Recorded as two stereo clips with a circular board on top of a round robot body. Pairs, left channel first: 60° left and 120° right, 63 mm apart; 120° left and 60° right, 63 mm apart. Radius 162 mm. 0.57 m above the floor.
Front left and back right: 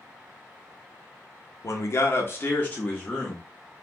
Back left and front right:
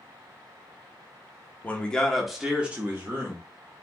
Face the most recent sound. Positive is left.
turn(degrees=-25)